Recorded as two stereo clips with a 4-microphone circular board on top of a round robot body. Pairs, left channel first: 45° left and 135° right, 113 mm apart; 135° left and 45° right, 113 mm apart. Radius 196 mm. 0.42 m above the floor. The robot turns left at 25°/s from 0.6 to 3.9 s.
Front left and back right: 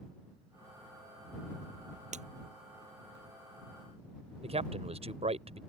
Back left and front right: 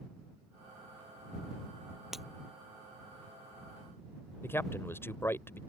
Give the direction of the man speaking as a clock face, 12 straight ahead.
5 o'clock.